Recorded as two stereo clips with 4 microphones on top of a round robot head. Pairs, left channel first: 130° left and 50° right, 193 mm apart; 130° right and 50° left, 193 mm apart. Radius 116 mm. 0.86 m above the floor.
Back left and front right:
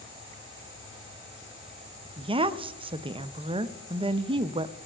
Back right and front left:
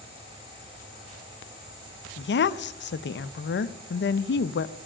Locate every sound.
2.2 s a woman speaking: 110° right, 0.6 m